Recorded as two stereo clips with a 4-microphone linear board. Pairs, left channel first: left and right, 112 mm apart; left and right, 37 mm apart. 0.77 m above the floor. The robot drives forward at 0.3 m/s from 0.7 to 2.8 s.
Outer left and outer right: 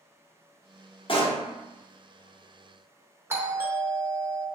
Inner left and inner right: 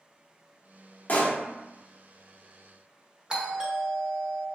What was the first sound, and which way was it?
A pop, 50° left (ahead or behind).